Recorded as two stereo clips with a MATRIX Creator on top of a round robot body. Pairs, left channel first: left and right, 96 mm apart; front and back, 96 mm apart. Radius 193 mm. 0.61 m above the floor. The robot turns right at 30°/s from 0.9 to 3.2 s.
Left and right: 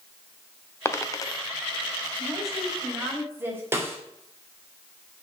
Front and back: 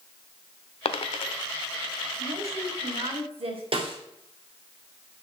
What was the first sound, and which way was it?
A dropped coin, 25° left.